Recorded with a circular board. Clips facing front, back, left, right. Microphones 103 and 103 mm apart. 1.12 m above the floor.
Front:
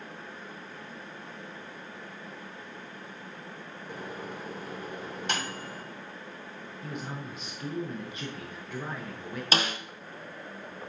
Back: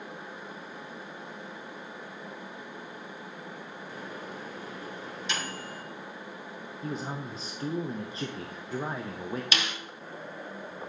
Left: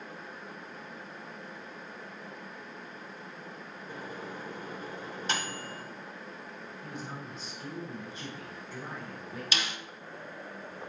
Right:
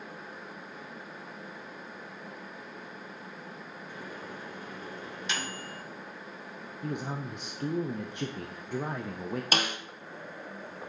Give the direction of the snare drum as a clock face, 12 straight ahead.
2 o'clock.